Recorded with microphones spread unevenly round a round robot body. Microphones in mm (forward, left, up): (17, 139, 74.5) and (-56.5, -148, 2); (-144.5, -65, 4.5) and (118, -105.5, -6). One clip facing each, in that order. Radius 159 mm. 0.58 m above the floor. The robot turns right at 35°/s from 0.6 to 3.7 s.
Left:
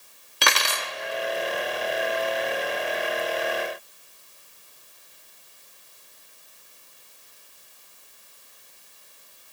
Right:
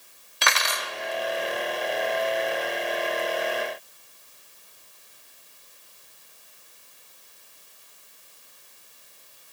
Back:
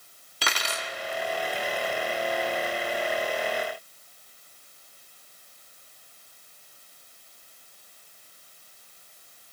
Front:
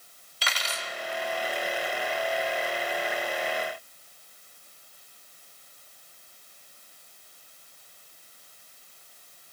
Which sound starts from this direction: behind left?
Cutlery clinking, at 0.4 s.